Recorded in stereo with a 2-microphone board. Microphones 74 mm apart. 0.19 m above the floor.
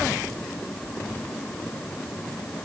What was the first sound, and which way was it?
Only background noise.